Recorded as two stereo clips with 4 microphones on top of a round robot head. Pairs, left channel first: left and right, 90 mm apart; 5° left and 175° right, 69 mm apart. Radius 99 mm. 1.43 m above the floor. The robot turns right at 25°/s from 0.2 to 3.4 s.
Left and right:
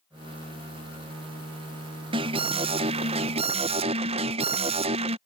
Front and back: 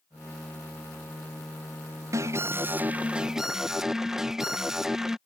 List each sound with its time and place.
2.1 s an alarm: 125° right; by 5.2 s 90° right